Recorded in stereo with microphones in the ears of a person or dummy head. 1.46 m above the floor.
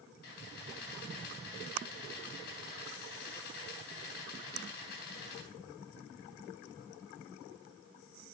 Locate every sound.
0.2 s a camera shutter: 55° left (ahead or behind), 3.5 m